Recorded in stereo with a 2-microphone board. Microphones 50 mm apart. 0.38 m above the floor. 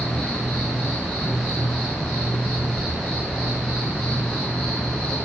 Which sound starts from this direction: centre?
An insect, at 0.0 s.